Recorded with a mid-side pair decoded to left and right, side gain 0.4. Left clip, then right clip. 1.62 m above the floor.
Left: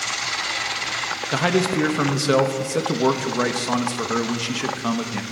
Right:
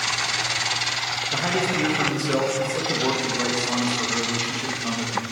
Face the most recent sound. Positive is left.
turn(degrees=60)